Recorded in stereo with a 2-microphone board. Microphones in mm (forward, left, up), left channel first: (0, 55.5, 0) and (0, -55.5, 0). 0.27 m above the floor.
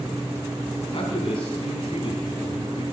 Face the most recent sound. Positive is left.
turn(degrees=50)  # may be behind; listen again after turning